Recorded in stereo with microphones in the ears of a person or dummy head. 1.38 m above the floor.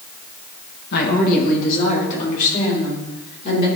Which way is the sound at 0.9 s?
50° left (ahead or behind).